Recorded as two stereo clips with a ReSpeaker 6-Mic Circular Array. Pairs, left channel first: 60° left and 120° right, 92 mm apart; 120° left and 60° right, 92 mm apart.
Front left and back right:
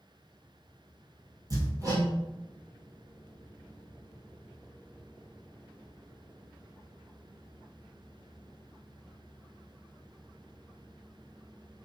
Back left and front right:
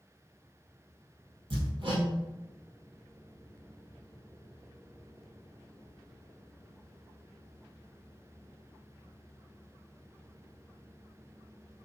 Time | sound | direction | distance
1.5 | hammering | 75° right | 1.8 m